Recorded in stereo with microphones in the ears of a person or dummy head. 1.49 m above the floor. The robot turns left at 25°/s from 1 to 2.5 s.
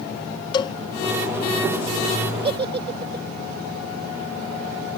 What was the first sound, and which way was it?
A cowbell, 30° left (ahead or behind).